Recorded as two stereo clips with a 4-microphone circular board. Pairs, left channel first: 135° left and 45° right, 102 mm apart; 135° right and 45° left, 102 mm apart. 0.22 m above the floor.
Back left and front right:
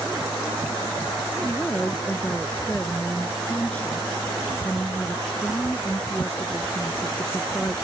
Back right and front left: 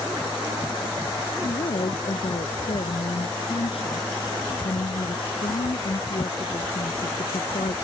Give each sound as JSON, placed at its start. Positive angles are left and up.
{"t": 1.4, "sound": "a woman speaking", "azimuth_deg": -145}